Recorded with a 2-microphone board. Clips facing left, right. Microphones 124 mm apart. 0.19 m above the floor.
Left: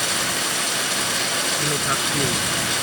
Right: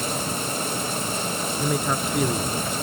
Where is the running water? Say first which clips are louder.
Left 1 dB; 85° left.